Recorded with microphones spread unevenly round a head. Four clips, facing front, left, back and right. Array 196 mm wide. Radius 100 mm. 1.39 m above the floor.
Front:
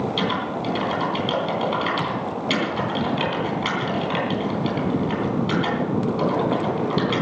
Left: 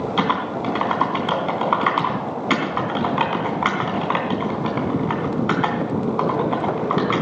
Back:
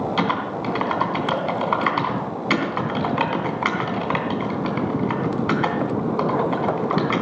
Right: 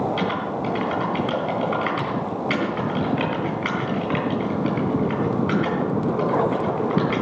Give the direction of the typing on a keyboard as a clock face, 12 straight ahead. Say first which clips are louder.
Left 3 dB, back 2 dB; 8 o'clock.